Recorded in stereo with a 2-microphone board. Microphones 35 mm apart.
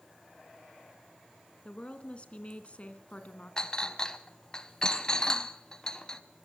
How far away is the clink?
About 0.7 m.